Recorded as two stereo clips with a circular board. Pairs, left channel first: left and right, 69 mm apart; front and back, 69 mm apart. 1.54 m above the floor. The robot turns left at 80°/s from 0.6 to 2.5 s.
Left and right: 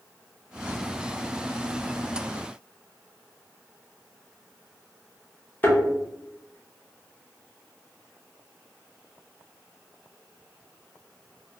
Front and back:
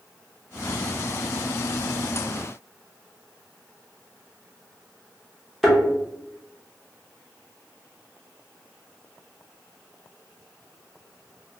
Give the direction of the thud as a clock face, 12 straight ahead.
9 o'clock.